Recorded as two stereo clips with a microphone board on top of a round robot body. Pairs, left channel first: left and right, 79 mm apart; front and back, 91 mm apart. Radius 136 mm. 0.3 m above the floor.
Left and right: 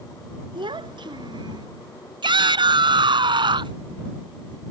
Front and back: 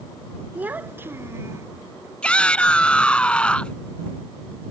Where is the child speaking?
105° right; by 1.7 s 120° right.